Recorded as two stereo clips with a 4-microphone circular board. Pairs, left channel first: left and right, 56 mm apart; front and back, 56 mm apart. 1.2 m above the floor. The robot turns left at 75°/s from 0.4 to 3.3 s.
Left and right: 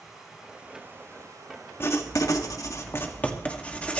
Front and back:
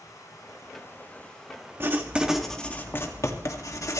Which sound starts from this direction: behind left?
Writing, at 1.8 s.